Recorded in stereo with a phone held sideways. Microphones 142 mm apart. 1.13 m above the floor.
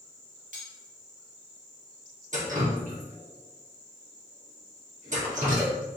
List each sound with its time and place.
0.5 s cutlery clinking: 65° right (ahead or behind), 1.1 m
2.3 s dripping: 60° right (ahead or behind), 1.4 m